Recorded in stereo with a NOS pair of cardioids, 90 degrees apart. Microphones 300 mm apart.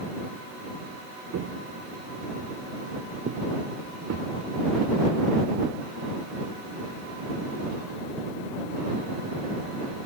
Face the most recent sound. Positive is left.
turn(degrees=-55)